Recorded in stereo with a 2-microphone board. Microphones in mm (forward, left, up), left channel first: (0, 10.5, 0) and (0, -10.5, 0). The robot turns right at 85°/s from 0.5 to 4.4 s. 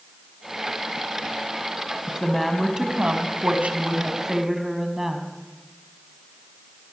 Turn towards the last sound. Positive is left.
turn(degrees=-15)